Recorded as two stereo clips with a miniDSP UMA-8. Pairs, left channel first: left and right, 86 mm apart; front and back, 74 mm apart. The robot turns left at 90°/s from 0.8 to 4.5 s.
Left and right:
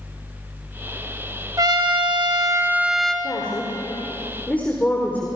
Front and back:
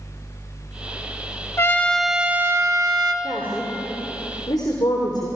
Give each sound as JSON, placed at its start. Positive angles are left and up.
{"t": 1.6, "sound": "a trumpet", "azimuth_deg": -50, "distance_m": 1.5}
{"t": 3.2, "sound": "a woman speaking", "azimuth_deg": 130, "distance_m": 3.0}